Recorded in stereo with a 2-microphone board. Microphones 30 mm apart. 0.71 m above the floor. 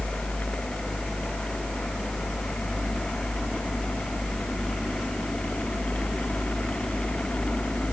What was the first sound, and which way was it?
Only background noise.